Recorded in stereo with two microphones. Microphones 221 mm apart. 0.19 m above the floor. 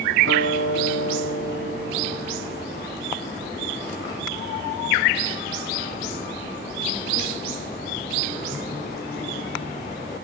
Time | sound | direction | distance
0.2 | a guitar | 80° right | 5.5 m